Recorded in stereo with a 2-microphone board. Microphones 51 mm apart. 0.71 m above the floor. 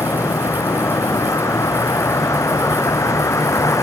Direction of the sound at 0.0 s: 85° left.